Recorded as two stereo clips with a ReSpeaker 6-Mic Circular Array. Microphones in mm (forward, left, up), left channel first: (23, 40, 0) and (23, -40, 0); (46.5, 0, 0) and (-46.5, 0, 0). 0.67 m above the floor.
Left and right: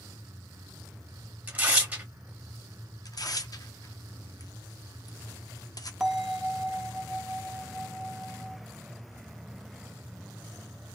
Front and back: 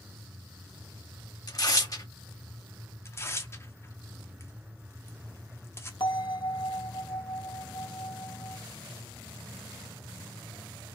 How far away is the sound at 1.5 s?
About 1.0 m.